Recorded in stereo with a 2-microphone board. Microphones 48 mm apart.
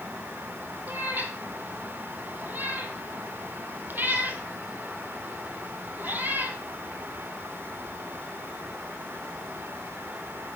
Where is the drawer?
No drawer in this recording.